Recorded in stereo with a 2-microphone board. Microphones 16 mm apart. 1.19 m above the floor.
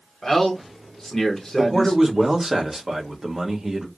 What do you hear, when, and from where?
0.2 s a man speaking: 15° left (ahead or behind), 1.0 m
1.6 s a man speaking: 25° right (ahead or behind), 1.1 m